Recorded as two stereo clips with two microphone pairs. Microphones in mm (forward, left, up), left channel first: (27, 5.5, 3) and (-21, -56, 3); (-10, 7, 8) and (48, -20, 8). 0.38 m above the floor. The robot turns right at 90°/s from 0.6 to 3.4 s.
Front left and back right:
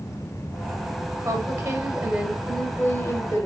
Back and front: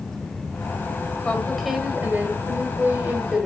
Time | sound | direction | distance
1.2 | a woman speaking | 140° right | 1.6 m